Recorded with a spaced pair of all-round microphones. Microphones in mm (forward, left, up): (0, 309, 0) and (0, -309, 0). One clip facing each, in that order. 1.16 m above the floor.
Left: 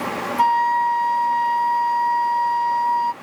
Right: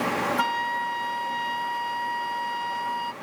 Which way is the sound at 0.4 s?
15° right (ahead or behind).